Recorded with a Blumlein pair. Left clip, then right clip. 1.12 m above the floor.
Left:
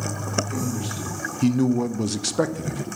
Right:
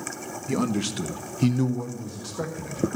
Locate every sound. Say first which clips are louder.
0.5 s a man speaking: right 3 dB; 35° right, 0.9 m; by 2.9 s 80° left, 0.7 m